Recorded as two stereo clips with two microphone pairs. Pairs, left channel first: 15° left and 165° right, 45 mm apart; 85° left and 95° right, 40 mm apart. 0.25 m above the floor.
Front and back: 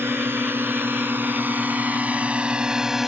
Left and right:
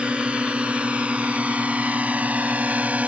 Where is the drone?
150° right; by 3.1 s 85° right.